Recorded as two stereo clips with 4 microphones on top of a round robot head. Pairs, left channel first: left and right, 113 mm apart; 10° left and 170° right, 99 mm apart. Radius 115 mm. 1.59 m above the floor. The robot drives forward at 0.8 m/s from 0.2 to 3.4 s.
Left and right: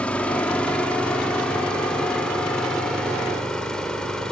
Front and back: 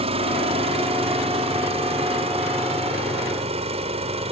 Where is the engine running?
170° left; by 4.3 s 175° left.